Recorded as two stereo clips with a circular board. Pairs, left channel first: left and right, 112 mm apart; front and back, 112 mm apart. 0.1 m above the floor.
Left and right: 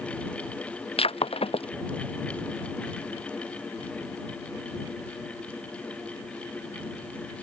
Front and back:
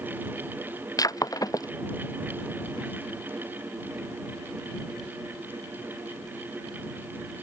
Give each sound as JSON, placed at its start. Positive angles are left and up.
{"t": 1.0, "sound": "breaking glass", "azimuth_deg": 60}